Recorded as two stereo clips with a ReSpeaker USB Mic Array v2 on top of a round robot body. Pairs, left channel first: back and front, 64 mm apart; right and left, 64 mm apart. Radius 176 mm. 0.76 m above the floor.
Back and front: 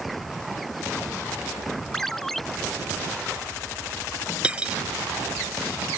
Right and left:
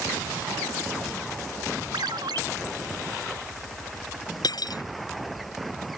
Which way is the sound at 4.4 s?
75° right.